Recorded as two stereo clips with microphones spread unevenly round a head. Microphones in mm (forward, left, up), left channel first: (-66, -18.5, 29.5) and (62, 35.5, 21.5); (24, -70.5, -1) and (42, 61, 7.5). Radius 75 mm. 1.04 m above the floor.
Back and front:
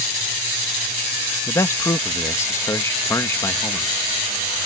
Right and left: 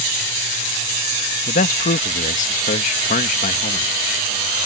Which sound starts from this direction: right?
A man speaking, at 1.5 s.